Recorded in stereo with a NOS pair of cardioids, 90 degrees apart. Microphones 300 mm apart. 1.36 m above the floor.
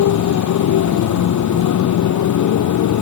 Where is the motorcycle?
70° left.